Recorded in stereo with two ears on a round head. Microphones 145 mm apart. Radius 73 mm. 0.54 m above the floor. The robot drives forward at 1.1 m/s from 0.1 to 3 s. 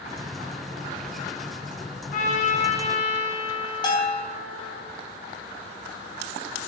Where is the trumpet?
55° left (ahead or behind), 3.5 m; by 4.8 s 40° left (ahead or behind), 4 m.